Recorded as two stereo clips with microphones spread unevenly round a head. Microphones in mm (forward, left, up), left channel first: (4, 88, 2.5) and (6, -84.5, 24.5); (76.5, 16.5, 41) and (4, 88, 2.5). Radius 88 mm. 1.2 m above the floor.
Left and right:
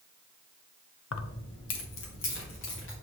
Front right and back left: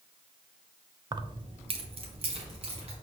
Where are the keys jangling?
80° left, 0.5 m; by 2.9 s 115° left, 2.5 m.